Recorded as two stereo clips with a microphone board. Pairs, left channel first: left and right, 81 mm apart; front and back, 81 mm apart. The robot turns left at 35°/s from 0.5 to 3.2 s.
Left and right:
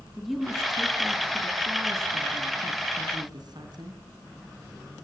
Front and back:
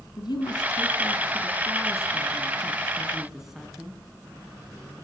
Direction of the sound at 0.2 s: Straight ahead.